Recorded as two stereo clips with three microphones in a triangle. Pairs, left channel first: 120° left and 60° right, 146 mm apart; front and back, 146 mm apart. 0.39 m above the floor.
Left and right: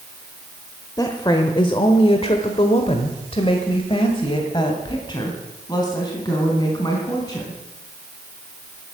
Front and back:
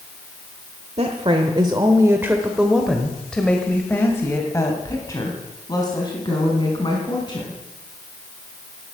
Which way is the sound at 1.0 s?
170° left.